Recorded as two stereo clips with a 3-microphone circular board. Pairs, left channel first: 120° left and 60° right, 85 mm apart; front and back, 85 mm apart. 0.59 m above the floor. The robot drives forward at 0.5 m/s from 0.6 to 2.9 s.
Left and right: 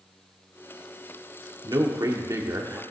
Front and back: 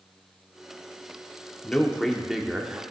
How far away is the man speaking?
About 1.2 m.